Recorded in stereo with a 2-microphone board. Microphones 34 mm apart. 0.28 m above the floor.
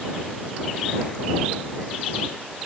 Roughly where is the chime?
No chime in this recording.